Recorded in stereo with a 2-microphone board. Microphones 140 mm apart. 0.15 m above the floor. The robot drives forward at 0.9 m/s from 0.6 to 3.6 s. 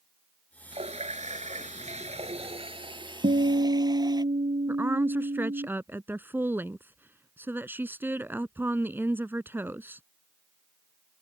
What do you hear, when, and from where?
0.7 s a running tap: 50° right (ahead or behind); by 4.2 s 30° right (ahead or behind)
3.2 s a guitar: 75° right (ahead or behind); by 5.7 s 70° right (ahead or behind)
4.7 s a woman speaking: 15° right (ahead or behind)